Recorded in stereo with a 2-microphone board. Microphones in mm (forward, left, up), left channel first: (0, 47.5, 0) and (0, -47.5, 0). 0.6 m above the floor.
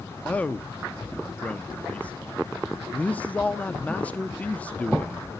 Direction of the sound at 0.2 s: 15° left (ahead or behind).